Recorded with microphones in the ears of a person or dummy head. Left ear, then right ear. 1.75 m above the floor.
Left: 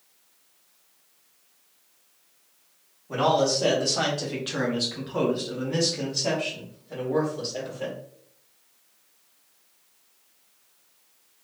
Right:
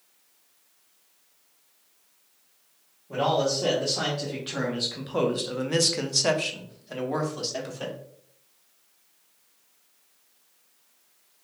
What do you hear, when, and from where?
3.1 s a man speaking: 40° left (ahead or behind), 1.2 m; by 8.0 s 65° right (ahead or behind), 1.5 m